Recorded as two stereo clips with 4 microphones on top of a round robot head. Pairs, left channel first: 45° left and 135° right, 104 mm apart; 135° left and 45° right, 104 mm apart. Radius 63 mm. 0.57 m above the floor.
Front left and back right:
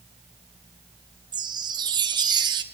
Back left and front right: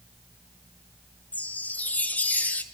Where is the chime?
155° right, 0.6 m.